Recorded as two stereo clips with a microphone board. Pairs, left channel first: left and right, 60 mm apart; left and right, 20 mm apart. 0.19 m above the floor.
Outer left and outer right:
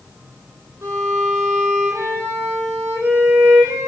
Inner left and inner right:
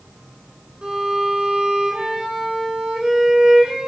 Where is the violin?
40° right (ahead or behind), 4.5 m.